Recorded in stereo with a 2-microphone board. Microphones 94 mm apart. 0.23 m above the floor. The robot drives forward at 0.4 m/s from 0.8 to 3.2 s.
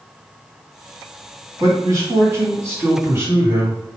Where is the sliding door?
No sliding door in this recording.